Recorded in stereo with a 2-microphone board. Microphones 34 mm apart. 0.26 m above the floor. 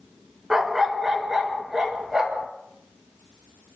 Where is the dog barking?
5° right (ahead or behind), 1.3 m.